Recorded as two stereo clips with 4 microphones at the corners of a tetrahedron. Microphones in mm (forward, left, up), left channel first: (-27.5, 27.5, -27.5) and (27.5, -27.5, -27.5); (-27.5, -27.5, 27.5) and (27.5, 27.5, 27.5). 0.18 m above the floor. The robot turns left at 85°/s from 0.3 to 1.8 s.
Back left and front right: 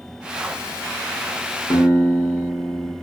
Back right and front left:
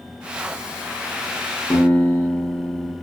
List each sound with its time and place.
1.7 s a guitar: 155° left, 0.8 m; by 3.0 s 145° left, 0.8 m